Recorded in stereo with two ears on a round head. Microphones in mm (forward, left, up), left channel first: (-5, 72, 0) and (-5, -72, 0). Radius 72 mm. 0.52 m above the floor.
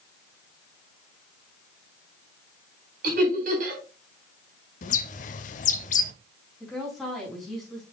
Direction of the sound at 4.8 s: 50° left (ahead or behind).